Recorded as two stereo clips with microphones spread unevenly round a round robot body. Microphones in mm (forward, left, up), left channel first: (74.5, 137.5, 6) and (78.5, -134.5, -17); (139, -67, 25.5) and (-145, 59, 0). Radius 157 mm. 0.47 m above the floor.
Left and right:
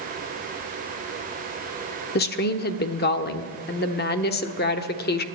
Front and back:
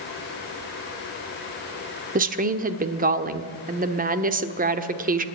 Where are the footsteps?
I don't hear footsteps.